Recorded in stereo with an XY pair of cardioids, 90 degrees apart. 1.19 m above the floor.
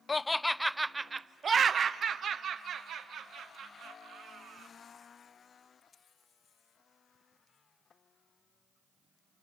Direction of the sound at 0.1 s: 30° left.